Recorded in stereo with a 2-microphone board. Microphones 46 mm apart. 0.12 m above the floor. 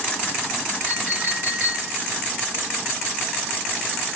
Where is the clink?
20° right (ahead or behind), 9.5 m.